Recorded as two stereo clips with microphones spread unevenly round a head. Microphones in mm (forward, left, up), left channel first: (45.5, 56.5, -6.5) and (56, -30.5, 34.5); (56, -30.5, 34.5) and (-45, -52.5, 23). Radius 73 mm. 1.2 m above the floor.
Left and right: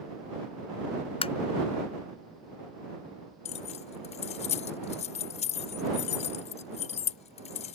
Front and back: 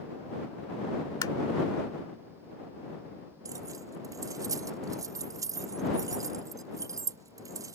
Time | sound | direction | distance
1.2 | tapping | 75° left | ?
3.5 | keys jangling | 125° left | ?